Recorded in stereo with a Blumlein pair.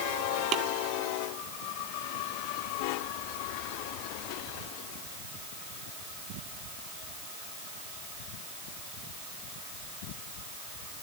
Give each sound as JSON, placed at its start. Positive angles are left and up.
{"t": 0.5, "sound": "tapping", "azimuth_deg": -30}